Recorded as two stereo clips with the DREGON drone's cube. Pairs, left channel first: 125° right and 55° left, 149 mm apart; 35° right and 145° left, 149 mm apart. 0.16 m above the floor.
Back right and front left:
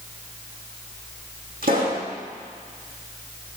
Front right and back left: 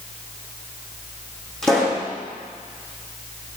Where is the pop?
50° left, 4.5 m.